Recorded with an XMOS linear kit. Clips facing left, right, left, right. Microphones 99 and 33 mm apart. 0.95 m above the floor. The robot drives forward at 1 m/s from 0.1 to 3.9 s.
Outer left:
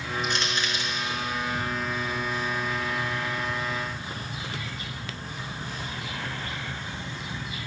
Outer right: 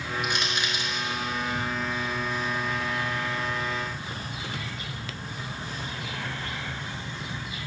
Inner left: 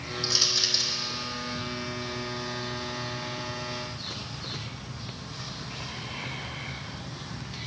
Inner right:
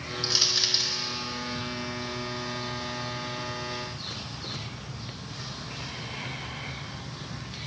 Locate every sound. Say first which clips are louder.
0.2 s crushing: outer left 1 dB, even; 15° right (ahead or behind), 2.5 m